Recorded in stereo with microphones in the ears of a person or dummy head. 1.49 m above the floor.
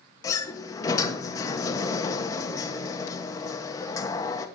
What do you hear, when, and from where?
0.2 s a sliding door: 25° left (ahead or behind), 1.2 m